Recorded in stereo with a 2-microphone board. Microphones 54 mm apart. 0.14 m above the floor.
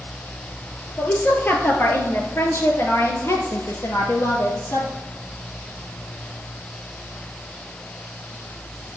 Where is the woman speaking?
30° left (ahead or behind), 2.5 m; by 4.9 s 70° left (ahead or behind), 3 m.